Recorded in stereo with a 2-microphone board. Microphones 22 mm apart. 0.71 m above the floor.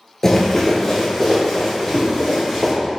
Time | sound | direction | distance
0.2 | running footsteps | 20° left (ahead or behind) | 0.7 m